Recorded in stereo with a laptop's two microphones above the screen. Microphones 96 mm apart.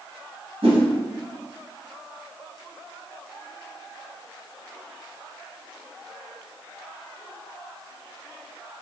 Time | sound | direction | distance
0.6 | a whoosh | 90° right | 1.0 m